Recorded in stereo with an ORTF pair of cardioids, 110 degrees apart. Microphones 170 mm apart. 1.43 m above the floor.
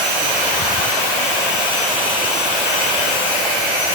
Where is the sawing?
I don't hear sawing.